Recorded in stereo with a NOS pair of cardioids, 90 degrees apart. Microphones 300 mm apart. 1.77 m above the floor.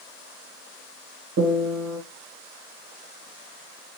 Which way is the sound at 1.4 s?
70° right.